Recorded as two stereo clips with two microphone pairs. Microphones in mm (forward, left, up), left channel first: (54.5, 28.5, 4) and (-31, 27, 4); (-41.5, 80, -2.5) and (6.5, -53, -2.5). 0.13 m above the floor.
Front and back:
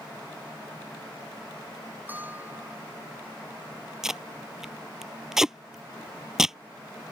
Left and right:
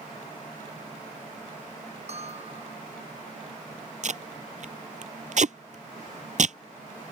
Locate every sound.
2.1 s a bell: 110° right
4.0 s tape being pulled: 95° right